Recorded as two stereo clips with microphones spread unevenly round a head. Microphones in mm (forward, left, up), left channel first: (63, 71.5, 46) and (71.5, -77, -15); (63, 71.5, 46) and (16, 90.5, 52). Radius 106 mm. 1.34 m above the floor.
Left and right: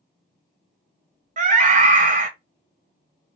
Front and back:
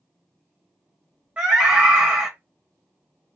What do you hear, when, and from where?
1.4 s a scream: 125° right, 0.9 m